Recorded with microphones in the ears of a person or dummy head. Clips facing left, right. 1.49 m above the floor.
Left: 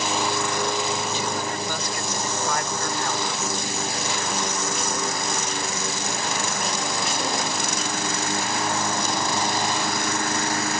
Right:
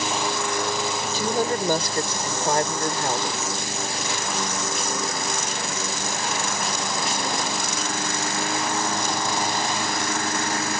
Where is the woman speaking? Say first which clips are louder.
Right 4 dB; 35° right (ahead or behind); by 3.4 s 25° right (ahead or behind).